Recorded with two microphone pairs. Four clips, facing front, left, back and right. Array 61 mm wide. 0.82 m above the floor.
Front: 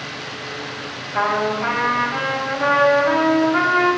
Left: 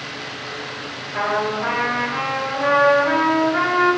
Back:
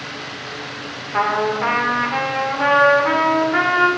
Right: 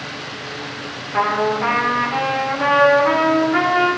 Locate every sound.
1.1 s a trumpet: 150° right, 1.9 m